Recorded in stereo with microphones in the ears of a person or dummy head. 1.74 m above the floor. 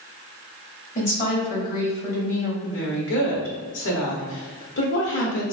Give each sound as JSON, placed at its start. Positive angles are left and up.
{"t": 0.9, "sound": "a woman speaking", "side_deg": 40, "distance_m": 0.8}
{"t": 2.6, "sound": "a woman speaking", "side_deg": 60, "distance_m": 0.9}